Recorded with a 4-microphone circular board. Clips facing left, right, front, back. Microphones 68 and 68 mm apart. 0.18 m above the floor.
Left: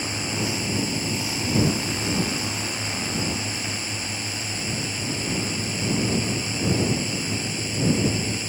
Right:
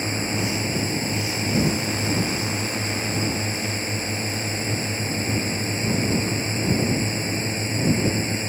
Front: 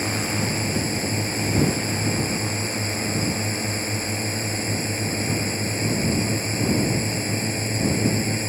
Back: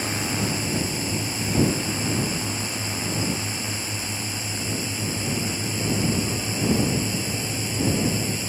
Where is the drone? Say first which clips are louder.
Right 2 dB, front 1 dB; 40° right.